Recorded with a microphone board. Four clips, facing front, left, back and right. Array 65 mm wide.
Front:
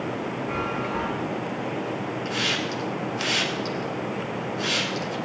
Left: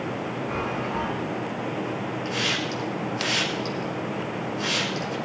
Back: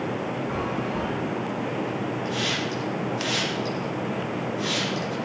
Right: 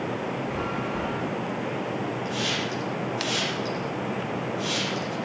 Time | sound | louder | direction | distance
0.5 | a chime | left 1 dB, even | 15° left | 5.5 m
2.2 | a hiss | left 1 dB, even | 25° left | 8 m